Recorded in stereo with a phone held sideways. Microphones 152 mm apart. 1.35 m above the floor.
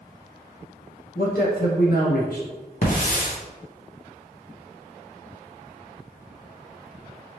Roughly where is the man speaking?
Left.